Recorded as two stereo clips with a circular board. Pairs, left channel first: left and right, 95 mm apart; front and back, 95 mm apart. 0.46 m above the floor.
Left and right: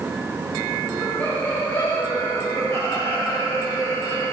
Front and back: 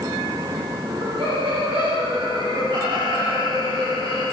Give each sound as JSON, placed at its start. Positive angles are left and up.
{"t": 0.8, "sound": "laughter", "azimuth_deg": 170, "distance_m": 3.0}